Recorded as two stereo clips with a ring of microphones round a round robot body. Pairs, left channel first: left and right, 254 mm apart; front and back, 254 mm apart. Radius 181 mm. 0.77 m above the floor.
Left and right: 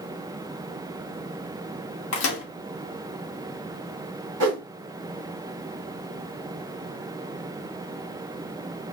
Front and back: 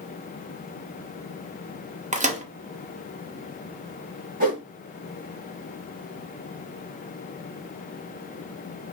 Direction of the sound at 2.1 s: 120° left.